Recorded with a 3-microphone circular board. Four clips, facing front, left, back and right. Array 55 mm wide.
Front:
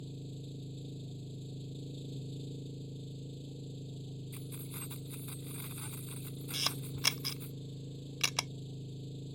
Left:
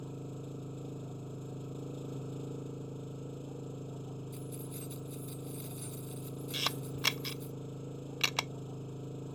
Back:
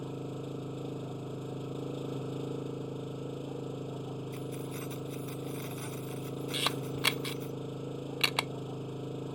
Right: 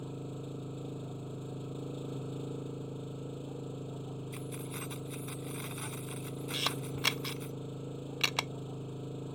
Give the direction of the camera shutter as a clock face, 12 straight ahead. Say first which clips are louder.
Right 1 dB, back 6 dB; 6 o'clock.